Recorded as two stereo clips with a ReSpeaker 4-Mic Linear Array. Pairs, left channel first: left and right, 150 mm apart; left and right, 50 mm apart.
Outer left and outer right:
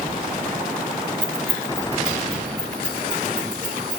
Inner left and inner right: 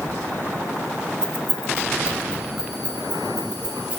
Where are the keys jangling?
10° left (ahead or behind), 0.7 m; by 4.0 s 30° right (ahead or behind), 2 m.